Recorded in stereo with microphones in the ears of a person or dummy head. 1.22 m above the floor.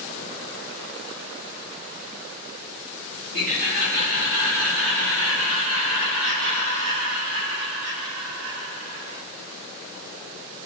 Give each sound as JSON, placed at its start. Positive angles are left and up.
{"t": 3.3, "sound": "laughter", "side_deg": -80, "distance_m": 5.5}